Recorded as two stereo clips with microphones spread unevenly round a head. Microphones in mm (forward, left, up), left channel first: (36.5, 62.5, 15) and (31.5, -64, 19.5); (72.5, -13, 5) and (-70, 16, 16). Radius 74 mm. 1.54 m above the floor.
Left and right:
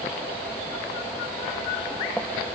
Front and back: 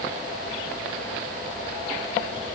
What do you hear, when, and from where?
Only background noise.